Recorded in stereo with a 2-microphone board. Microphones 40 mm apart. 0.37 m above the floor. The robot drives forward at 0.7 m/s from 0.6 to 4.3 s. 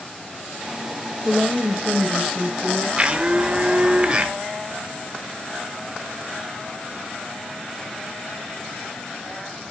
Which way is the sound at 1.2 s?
10° left (ahead or behind).